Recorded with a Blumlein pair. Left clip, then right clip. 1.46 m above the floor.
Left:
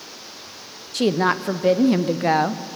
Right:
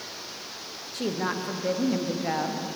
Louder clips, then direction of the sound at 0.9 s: Left 10 dB; 60° left.